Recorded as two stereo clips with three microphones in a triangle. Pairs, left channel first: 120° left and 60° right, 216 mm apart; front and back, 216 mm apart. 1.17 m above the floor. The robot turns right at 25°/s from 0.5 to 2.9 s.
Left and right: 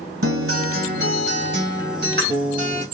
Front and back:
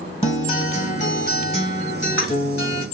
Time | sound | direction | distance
0.2 | a guitar | 65° right | 2.0 m